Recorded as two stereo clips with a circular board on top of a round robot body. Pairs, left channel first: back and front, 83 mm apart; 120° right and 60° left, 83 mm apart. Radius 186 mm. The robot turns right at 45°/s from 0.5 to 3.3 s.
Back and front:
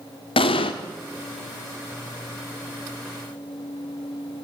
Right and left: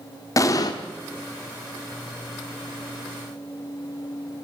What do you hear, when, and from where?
0.4 s an explosion: 170° right, 1.2 m; by 0.7 s 160° right, 1.2 m